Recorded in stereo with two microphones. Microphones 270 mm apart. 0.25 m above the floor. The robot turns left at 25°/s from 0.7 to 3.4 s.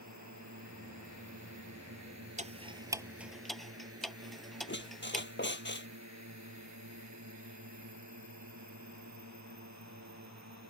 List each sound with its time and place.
0.0 s a drone: 75° right (ahead or behind); by 10.7 s 70° right (ahead or behind)
2.4 s ticking: 25° right (ahead or behind); by 5.3 s centre (ahead or behind)
4.7 s a squeak: 40° left (ahead or behind)